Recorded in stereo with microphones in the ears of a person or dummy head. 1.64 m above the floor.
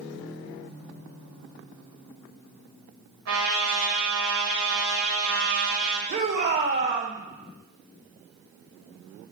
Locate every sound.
3.3 s a trumpet: 75° right (ahead or behind), 3.5 m
6.1 s a shout: 45° right (ahead or behind), 2 m